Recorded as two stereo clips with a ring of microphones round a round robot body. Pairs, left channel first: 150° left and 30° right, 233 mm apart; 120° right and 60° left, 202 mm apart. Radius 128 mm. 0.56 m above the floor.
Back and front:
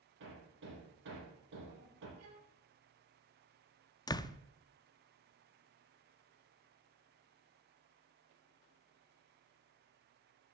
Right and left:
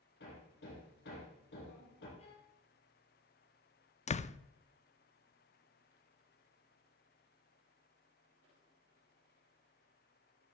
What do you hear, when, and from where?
0.2 s hammering: 70° right, 5.5 m
2.2 s a violin: 55° right, 3.5 m
4.1 s a door slam: 145° right, 0.6 m